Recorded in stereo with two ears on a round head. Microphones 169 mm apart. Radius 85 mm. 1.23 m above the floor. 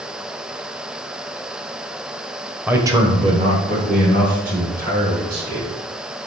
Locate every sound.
2.7 s a man speaking: 10° right (ahead or behind), 0.8 m; by 5.7 s 50° right (ahead or behind), 3.5 m